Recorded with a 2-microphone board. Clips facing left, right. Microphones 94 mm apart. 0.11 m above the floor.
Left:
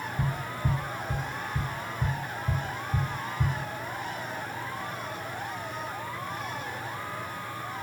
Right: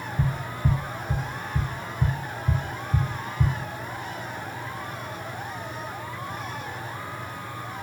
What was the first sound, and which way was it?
Tapping, 25° right (ahead or behind).